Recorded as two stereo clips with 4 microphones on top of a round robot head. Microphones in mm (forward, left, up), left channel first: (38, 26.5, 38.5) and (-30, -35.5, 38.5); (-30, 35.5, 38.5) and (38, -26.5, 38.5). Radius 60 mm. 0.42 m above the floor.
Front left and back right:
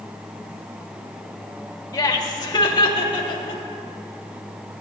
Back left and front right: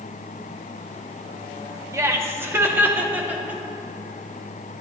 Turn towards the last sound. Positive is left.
turn(degrees=30)